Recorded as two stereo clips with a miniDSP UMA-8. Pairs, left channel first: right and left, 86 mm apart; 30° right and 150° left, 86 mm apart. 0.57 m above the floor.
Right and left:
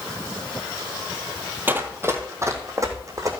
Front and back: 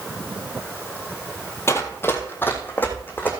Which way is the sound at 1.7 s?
25° left.